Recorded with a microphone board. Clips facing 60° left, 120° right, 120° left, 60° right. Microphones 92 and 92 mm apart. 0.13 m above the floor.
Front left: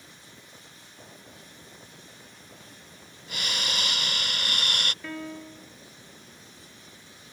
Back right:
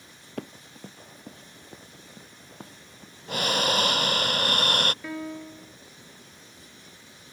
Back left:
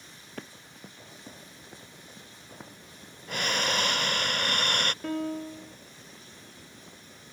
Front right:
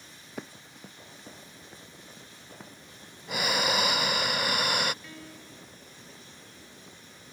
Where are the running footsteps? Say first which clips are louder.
Back right 13 dB, front right 2 dB; 140° right; by 4.0 s 165° right.